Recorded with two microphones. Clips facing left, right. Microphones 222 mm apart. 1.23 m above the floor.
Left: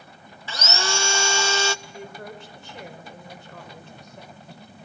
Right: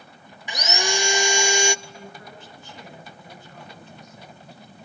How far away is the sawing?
About 0.5 m.